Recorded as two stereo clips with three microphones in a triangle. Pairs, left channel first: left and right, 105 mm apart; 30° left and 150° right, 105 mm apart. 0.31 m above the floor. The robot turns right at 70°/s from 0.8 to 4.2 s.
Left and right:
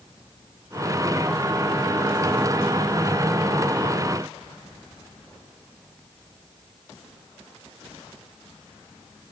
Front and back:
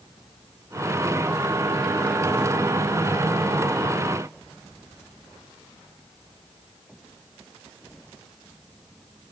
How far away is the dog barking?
I don't hear a dog barking.